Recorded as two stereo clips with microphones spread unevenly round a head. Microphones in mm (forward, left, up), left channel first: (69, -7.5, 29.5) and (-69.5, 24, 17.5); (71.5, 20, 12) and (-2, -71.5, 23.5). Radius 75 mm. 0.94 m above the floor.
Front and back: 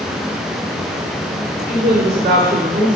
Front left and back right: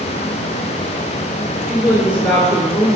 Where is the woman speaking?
150° left, 3 m; by 3.0 s 145° left, 2.5 m.